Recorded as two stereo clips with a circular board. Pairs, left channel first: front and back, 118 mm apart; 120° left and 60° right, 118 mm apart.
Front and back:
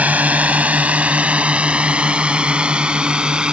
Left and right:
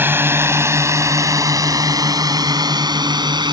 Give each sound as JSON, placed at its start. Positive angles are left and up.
{"t": 0.0, "sound": "a drone", "azimuth_deg": -115}